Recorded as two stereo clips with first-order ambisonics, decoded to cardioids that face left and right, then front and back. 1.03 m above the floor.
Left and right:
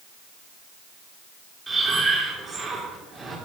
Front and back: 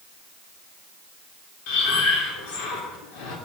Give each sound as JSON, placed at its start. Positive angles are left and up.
{"t": 1.7, "sound": "breathing", "azimuth_deg": -10, "distance_m": 3.5}